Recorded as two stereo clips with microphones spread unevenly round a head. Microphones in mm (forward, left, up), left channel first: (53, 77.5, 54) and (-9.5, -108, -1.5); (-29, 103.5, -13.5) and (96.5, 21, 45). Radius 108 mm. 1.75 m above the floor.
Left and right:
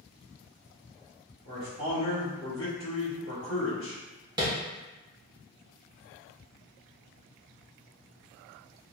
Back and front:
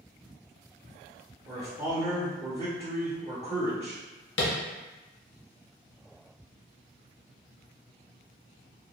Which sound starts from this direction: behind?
Tapping, at 4.4 s.